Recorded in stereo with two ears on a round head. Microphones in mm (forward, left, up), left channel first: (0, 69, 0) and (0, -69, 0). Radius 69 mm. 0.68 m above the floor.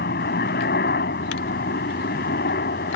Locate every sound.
0.0 s a helicopter: 65° left (ahead or behind)